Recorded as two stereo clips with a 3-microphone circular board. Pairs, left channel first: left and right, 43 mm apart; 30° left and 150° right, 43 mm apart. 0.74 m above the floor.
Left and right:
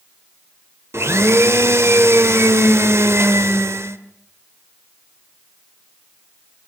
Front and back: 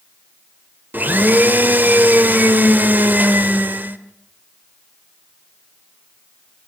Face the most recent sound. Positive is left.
turn(degrees=-105)